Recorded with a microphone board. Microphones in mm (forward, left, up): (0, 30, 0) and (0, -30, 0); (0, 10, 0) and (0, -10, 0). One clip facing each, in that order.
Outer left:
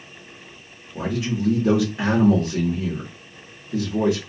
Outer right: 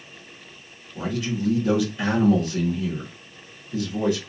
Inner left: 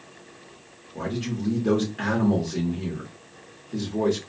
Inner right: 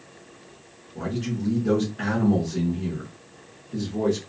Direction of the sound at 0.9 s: 80° left.